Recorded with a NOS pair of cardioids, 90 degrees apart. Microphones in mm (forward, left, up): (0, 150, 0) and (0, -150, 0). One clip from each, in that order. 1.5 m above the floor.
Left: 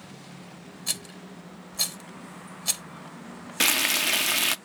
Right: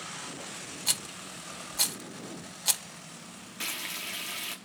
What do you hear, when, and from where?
0.9 s a rattle: 15° right, 1.1 m
3.6 s frying: 65° left, 0.5 m